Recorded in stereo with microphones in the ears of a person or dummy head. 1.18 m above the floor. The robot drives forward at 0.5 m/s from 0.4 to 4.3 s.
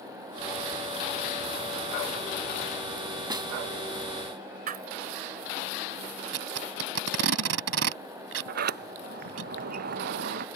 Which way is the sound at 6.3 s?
85° right.